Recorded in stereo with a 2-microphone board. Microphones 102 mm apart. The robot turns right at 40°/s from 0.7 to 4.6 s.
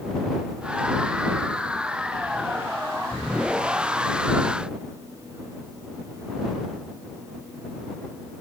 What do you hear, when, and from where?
Only background noise.